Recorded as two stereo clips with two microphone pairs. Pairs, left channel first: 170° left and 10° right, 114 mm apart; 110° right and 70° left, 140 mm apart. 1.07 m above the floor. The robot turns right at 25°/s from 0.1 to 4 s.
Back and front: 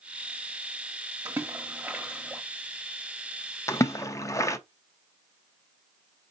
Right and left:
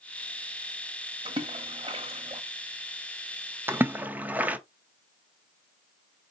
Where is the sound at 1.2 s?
45° left, 1.0 m; by 2.4 s 75° left, 1.0 m.